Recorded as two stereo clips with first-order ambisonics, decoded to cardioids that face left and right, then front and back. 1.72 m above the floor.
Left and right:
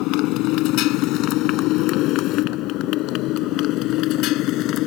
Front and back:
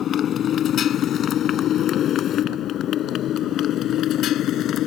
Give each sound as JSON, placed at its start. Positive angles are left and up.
{"t": 0.0, "sound": "a motorcycle", "azimuth_deg": 60}